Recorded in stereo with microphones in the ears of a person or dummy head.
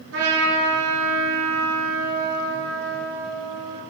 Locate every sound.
0.1 s a trumpet: 80° right, 3.5 m